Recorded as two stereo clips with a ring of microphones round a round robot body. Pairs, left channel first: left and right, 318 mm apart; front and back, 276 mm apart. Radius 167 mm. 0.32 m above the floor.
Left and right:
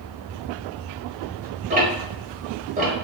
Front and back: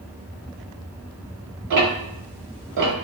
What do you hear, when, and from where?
1.7 s ticking: 155° right, 0.9 m